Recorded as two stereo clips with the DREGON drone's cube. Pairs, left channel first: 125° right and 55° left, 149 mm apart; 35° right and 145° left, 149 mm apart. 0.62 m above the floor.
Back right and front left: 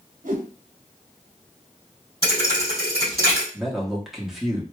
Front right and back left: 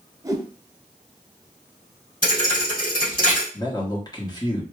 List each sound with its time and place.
0.2 s a whoosh: 75° left, 0.7 m
2.2 s a thud: 15° right, 2.5 m
3.5 s a man speaking: 30° right, 1.1 m